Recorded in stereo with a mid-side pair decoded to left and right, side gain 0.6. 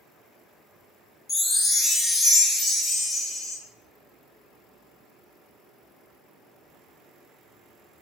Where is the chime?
25° left, 0.8 m.